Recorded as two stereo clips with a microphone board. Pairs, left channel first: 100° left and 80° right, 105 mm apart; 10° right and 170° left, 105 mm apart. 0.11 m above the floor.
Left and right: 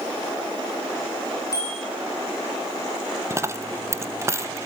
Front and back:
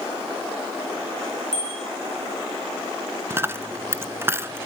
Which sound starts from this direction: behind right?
A dropped coin, at 3.3 s.